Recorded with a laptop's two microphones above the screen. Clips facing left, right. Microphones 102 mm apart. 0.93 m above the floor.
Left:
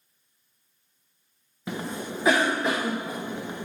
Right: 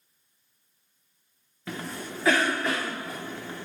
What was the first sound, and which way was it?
A cough, 15° left (ahead or behind).